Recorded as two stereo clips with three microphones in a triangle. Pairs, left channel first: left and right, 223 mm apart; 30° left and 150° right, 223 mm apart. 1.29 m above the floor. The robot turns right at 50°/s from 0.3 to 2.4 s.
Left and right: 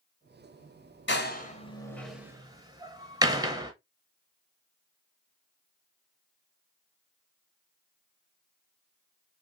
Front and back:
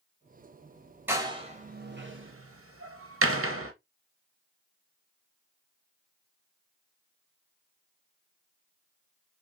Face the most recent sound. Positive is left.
turn(degrees=-165)